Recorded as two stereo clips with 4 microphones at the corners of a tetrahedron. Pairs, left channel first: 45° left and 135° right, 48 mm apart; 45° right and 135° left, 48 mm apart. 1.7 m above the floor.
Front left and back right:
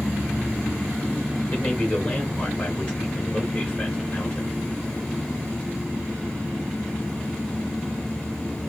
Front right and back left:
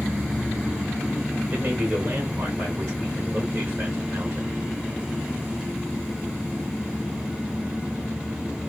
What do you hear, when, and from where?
1.5 s a man speaking: 110° left, 1.6 m